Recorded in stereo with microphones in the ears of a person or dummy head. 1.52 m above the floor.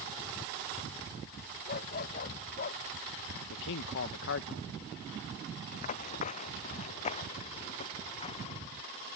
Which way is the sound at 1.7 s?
50° left (ahead or behind).